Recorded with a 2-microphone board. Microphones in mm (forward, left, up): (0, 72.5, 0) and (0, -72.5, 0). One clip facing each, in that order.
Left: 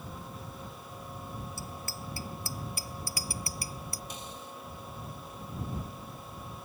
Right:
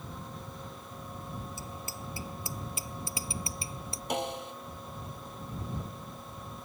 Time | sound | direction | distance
1.6 | a bicycle bell | 20° right (ahead or behind) | ?
4.1 | a snare drum | 85° right | ?